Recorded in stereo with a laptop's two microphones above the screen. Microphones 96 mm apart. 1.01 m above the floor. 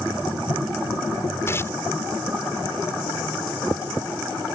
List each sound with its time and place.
1.5 s tearing paper: 30° left (ahead or behind)